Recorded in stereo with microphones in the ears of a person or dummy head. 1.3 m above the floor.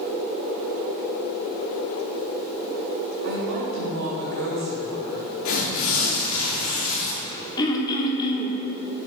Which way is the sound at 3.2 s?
65° right (ahead or behind).